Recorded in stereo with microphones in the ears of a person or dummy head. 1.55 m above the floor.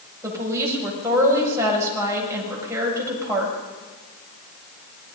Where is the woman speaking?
15° right (ahead or behind), 7.5 m.